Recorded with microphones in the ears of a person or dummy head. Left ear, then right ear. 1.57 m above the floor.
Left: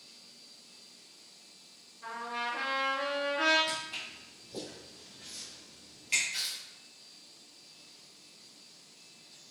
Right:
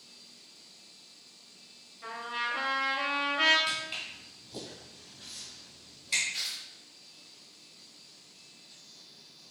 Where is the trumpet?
15° right (ahead or behind), 1.3 m.